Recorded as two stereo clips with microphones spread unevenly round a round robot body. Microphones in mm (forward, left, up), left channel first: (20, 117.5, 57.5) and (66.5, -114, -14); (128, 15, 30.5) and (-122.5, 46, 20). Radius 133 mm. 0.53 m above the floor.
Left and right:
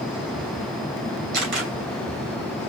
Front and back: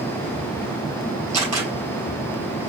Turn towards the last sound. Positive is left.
turn(degrees=-110)